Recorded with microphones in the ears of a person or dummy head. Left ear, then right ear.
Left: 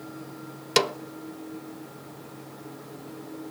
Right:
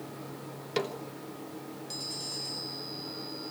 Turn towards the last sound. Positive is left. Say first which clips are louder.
# left 9 dB
turn(degrees=45)  # may be behind; listen again after turning